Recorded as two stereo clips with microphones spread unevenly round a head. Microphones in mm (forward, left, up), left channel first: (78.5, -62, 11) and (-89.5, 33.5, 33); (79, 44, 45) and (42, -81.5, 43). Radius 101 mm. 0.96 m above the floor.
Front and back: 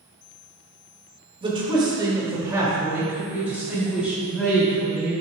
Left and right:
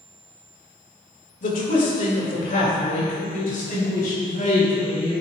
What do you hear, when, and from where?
1.4 s a man speaking: 85° left, 1.6 m; by 5.1 s 60° left, 3.5 m